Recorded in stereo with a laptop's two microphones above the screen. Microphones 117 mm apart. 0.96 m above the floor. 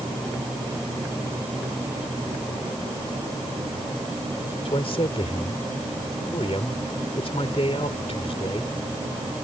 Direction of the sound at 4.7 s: 60° left (ahead or behind).